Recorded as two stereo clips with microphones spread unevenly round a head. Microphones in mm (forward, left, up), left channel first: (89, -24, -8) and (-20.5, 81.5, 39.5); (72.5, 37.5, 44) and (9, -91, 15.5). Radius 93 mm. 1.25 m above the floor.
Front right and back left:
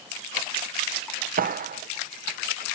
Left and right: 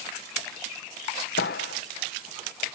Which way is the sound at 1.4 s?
100° left.